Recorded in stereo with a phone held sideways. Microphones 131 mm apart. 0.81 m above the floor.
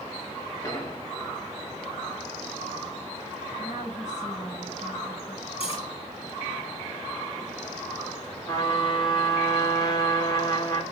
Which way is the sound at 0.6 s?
30° left (ahead or behind).